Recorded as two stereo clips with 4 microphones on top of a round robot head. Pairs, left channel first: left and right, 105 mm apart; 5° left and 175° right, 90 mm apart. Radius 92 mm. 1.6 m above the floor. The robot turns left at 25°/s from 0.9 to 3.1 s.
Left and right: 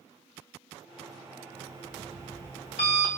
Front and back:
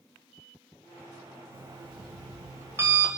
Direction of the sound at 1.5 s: 160° left.